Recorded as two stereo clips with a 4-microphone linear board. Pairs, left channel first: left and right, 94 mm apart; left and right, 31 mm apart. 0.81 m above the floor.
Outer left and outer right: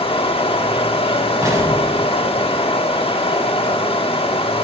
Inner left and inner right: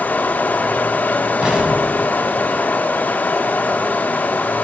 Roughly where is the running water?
Left.